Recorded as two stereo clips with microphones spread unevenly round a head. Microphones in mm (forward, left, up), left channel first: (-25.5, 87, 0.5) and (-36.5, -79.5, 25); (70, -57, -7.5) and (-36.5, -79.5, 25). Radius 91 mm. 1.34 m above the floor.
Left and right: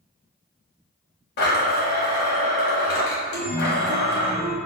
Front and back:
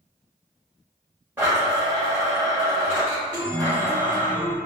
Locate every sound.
1.4 s a blender: 115° left, 1.9 m
3.3 s a chime: 105° right, 0.8 m